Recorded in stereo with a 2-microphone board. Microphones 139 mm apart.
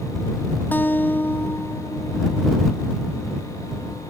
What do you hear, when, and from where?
0.7 s a guitar: 15° left (ahead or behind)